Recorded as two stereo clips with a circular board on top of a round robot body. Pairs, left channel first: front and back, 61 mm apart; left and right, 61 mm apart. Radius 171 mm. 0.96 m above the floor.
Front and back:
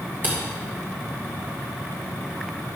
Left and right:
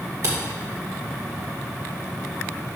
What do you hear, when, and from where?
0.2 s a camera shutter: 125° right, 1.4 m